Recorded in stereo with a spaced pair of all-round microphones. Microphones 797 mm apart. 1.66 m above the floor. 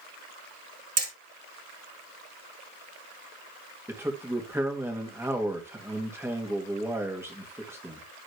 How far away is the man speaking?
About 3 m.